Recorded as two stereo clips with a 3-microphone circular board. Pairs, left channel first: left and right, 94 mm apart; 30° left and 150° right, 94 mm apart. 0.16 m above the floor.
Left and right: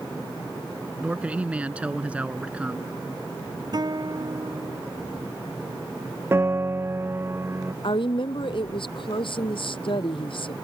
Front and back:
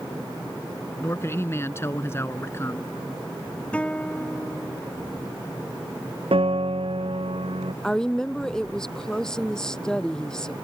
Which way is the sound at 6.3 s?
155° right.